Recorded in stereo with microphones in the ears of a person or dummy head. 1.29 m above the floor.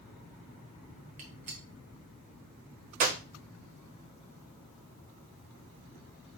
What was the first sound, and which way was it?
A gunshot, 35° right (ahead or behind).